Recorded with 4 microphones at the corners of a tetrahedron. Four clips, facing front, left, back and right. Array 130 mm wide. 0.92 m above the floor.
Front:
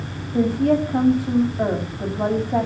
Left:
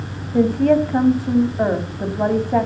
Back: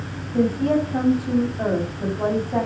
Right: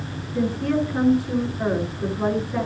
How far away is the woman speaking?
About 5.5 m.